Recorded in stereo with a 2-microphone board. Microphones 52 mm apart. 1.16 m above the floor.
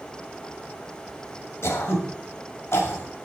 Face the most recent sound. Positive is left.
turn(degrees=50)  # may be behind; listen again after turning